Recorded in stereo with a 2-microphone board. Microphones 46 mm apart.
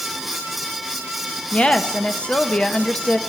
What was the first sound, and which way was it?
A woman speaking, 20° left (ahead or behind).